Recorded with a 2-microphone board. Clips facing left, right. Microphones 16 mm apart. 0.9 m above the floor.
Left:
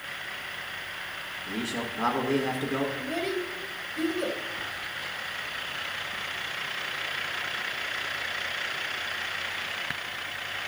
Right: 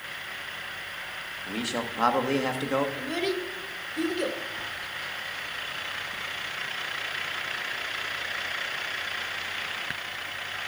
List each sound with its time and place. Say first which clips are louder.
1.5 s a man speaking: right 2 dB; 60° right (ahead or behind), 1.6 m
3.0 s a child speaking: right 1 dB; 55° right (ahead or behind), 1.5 m